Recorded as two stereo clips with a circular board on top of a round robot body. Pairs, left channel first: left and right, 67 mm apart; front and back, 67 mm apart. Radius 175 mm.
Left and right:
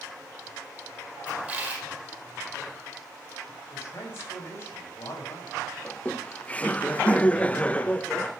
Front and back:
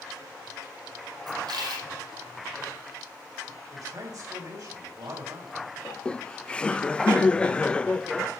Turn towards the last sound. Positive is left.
turn(degrees=55)